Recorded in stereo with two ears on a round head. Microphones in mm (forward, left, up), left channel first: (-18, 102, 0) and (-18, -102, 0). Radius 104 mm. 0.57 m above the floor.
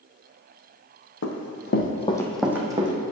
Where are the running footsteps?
65° left (ahead or behind), 1.3 m; by 2.9 s 25° right (ahead or behind), 1.3 m.